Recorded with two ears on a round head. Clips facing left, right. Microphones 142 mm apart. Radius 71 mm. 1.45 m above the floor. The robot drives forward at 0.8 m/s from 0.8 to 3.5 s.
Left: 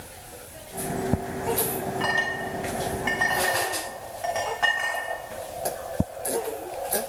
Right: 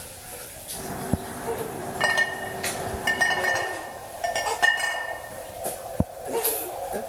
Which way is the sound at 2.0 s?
65° right (ahead or behind).